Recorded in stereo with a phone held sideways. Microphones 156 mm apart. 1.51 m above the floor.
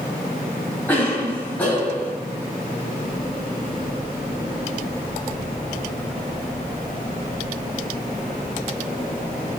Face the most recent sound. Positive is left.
turn(degrees=10)  # may be behind; listen again after turning